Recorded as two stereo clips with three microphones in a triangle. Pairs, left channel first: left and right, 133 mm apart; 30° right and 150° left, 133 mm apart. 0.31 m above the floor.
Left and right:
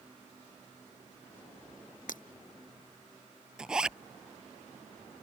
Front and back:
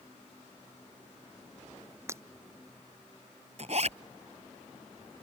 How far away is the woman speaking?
I don't hear a woman speaking.